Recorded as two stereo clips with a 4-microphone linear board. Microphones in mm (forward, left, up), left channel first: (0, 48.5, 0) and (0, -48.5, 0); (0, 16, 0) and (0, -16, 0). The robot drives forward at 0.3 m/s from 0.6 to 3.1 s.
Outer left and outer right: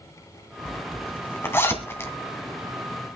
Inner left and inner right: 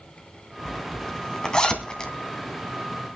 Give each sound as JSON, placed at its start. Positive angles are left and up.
{"t": 0.7, "sound": "a zipper", "side_deg": 20, "distance_m": 2.5}